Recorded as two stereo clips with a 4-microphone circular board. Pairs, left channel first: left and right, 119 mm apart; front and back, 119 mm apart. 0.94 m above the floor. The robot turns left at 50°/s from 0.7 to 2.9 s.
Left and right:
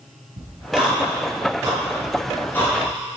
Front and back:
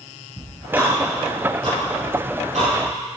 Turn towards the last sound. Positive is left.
turn(degrees=145)